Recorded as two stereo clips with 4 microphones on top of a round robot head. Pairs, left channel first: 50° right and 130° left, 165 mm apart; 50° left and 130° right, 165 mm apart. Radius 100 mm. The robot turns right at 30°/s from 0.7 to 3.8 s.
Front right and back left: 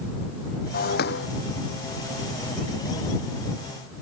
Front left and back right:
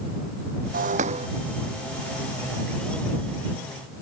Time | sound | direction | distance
0.7 | breaking glass | 90° right | ?